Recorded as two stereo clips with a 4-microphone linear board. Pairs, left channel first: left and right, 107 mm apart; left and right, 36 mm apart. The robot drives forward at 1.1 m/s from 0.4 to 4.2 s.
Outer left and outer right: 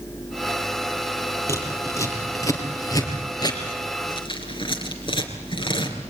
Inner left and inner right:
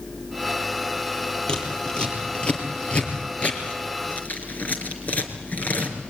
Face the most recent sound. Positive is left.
turn(degrees=50)  # may be behind; listen again after turning